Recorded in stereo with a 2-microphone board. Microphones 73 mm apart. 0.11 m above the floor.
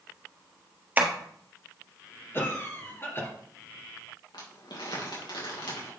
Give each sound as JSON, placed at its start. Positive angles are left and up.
{"t": 1.0, "sound": "tapping", "side_deg": -25, "distance_m": 1.3}
{"t": 2.3, "sound": "a cough", "side_deg": 30, "distance_m": 2.0}
{"t": 4.3, "sound": "crumpling", "side_deg": 80, "distance_m": 3.5}